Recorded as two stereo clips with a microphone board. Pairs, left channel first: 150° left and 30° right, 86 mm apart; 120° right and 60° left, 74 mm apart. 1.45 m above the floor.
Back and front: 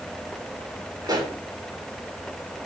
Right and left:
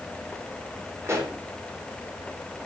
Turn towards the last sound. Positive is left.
turn(degrees=10)